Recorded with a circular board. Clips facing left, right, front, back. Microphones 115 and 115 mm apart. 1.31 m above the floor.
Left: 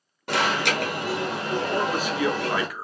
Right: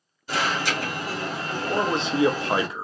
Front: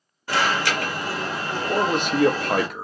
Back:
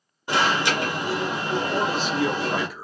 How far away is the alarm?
About 1.3 m.